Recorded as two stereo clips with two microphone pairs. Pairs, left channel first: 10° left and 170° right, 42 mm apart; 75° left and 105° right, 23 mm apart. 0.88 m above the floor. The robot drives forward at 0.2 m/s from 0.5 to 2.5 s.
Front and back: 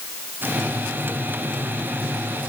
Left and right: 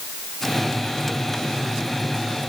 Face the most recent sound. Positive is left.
No sound to turn to.